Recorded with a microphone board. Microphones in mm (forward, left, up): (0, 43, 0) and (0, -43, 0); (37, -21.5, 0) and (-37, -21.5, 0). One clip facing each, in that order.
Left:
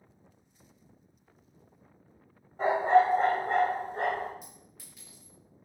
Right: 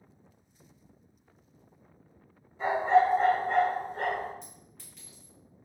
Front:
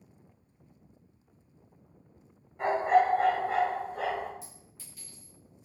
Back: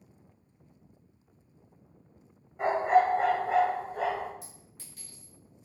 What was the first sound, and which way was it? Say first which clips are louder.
A dog barking: left 1 dB, even; 110° left.